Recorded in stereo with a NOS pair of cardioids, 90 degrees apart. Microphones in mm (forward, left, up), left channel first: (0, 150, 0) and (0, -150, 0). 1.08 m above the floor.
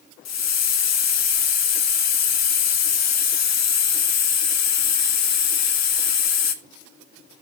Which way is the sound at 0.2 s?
60° left.